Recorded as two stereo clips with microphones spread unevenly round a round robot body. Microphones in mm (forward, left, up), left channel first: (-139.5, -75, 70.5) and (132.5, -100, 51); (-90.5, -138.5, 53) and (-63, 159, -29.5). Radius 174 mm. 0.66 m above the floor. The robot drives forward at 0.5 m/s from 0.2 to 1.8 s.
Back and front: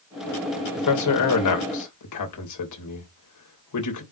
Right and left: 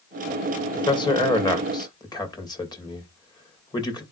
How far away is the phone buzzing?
I don't hear a phone buzzing.